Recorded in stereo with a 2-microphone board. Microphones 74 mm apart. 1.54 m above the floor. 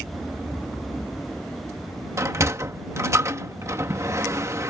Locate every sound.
2.2 s a sliding door: 40° right (ahead or behind)